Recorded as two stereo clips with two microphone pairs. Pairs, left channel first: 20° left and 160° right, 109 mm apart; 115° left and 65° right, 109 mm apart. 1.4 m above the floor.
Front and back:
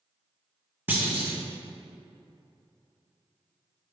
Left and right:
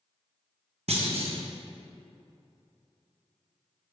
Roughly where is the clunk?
Right.